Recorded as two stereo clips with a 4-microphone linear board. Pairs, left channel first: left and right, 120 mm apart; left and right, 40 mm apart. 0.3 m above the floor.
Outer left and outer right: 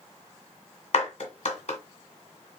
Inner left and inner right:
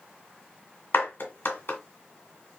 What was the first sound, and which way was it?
A clap, 70° left (ahead or behind).